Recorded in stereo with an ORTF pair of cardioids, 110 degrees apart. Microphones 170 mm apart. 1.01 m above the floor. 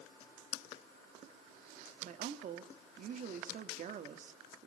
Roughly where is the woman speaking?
Ahead right.